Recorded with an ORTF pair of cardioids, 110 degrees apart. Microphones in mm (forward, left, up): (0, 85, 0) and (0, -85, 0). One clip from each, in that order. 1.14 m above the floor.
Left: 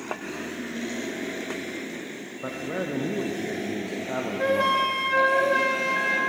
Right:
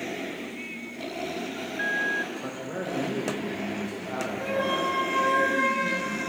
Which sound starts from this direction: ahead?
A man speaking, at 2.4 s.